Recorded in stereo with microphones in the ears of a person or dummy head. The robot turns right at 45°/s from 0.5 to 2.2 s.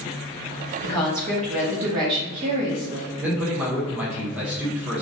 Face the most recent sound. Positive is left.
turn(degrees=-5)  # may be behind; listen again after turning